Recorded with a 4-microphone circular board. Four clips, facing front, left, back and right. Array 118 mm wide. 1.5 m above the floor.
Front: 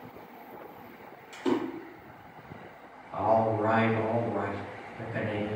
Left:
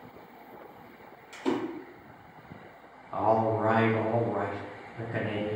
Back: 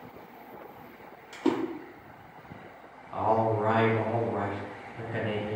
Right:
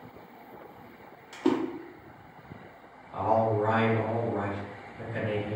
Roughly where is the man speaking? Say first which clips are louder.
Even, front 1 dB; behind left.